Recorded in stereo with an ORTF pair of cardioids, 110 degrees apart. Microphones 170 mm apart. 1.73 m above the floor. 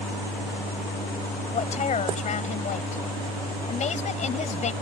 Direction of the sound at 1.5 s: 40° left.